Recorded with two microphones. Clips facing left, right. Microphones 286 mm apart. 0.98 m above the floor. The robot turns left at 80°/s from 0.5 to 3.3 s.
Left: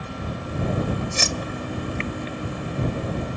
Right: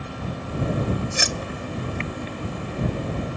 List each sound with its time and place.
1.1 s keys jangling: 10° right (ahead or behind); by 2.0 s 75° right (ahead or behind)